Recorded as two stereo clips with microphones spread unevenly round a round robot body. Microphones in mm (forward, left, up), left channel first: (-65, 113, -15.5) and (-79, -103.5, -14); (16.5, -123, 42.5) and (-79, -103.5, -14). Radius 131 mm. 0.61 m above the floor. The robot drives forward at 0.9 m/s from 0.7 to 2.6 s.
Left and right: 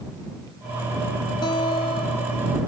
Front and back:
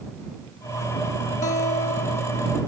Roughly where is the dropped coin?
No dropped coin in this recording.